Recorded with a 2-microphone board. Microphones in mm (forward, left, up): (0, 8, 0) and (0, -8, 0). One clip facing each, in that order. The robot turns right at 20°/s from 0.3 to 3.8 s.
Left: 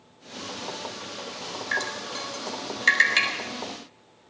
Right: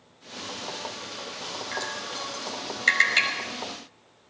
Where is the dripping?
50° left (ahead or behind), 4 m; by 3.3 s 20° left (ahead or behind), 4 m.